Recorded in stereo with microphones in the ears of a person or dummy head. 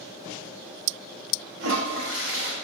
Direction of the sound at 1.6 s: 70° right (ahead or behind).